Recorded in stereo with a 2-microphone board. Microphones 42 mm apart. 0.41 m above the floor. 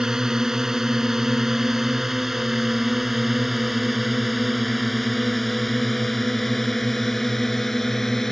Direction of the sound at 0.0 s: 15° right (ahead or behind).